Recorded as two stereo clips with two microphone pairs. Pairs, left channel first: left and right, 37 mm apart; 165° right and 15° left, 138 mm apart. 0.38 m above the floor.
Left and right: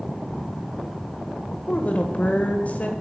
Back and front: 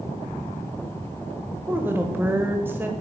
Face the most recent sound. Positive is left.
turn(degrees=85)